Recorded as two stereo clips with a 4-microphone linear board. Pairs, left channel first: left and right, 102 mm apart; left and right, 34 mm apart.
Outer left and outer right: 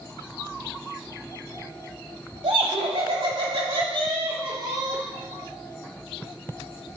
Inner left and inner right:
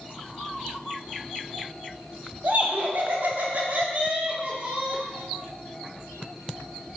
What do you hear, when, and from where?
2.4 s laughter: 70° right (ahead or behind), 2 m; by 5.0 s 35° right (ahead or behind), 1.9 m